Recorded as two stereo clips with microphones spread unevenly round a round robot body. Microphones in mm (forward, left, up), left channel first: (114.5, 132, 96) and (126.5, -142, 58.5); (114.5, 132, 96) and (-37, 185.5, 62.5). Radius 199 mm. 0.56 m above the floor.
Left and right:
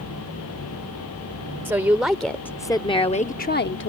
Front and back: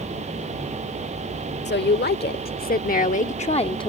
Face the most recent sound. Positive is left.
turn(degrees=50)